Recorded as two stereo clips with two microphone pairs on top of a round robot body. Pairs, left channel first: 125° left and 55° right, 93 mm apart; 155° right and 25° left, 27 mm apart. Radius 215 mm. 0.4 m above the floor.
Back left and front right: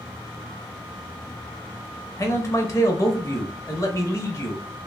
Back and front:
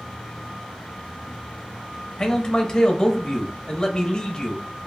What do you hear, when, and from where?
2.2 s a man speaking: 160° left, 1.1 m